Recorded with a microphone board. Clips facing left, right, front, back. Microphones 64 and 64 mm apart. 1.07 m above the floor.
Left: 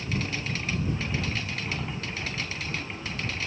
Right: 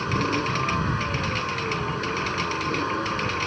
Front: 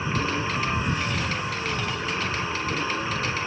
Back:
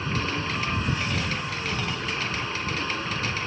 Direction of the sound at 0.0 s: 80° right.